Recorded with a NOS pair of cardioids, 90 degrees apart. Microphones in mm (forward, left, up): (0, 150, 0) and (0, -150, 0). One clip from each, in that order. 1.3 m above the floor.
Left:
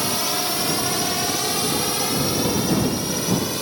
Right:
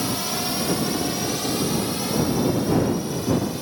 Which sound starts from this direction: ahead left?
A drone, at 0.0 s.